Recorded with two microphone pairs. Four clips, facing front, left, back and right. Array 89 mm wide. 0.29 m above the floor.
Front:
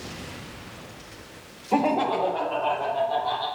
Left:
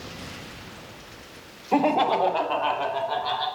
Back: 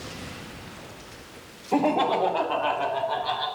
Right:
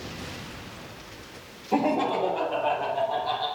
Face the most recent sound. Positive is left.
turn(degrees=120)